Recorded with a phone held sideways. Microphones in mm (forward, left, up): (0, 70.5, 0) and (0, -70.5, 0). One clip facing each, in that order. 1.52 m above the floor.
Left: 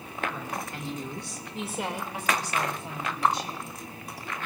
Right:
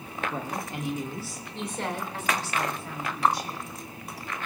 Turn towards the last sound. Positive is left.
turn(degrees=25)  # may be behind; listen again after turning